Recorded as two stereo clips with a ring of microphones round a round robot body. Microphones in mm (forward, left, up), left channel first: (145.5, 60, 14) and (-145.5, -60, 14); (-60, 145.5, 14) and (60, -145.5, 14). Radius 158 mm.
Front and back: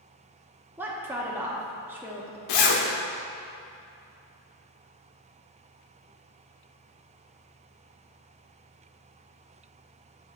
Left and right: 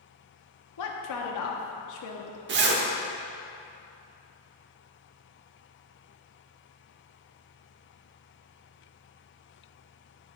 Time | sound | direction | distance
0.8 | a woman speaking | 120° left | 0.9 m
2.5 | a zipper | 10° right | 1.0 m